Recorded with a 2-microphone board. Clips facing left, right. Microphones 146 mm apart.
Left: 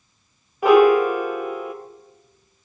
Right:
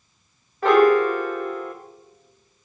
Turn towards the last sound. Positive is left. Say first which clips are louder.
# left 2 dB
turn(degrees=10)  # may be behind; listen again after turning